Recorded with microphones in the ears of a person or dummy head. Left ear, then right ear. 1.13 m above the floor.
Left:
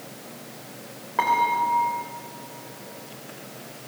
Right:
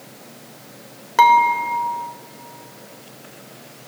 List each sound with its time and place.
1.2 s dishes clattering: 75° right (ahead or behind), 3 m